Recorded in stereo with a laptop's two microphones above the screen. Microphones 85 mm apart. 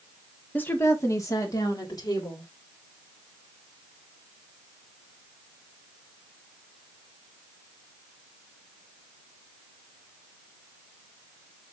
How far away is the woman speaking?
About 1.4 m.